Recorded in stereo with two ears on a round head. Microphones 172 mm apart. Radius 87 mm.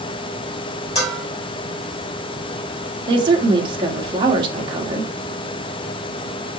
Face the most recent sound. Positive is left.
turn(degrees=-25)  # may be behind; listen again after turning